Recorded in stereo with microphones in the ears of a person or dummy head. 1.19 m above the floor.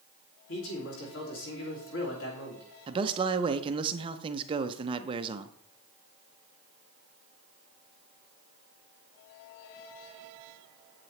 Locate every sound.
0.5 s a man speaking: 65° left (ahead or behind), 2.5 m
2.9 s a man speaking: 20° right (ahead or behind), 0.5 m